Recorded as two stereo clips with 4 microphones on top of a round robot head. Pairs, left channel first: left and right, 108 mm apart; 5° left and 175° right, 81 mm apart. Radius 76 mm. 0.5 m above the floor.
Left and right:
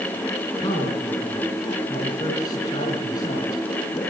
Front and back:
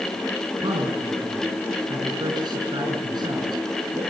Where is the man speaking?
150° left, 5.5 m.